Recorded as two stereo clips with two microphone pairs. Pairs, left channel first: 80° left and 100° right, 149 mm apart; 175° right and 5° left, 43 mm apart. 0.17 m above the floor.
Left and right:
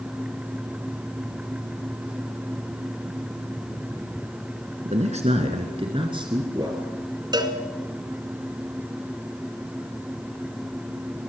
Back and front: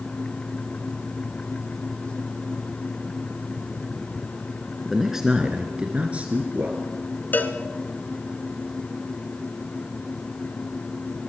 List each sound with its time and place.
4.8 s a man speaking: 80° right, 2 m; by 6.9 s 40° right, 3 m
7.3 s a cowbell: 155° right, 2 m